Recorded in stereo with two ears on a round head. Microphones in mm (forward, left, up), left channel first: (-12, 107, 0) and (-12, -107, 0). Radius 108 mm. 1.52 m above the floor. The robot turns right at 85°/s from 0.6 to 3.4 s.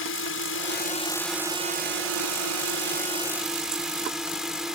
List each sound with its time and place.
0.0 s a drone: 120° left; by 4.8 s 5° right